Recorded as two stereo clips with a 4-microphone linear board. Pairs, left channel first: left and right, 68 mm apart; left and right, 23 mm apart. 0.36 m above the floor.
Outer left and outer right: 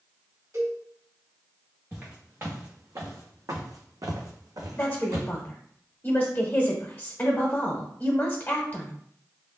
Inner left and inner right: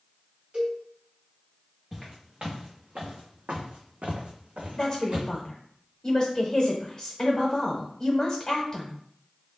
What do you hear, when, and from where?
0.5 s a cowbell: 50° right (ahead or behind), 1.6 m
1.9 s footsteps: 30° right (ahead or behind), 1.4 m; by 5.3 s 55° right (ahead or behind), 1.0 m
4.8 s a woman speaking: 30° left (ahead or behind), 0.9 m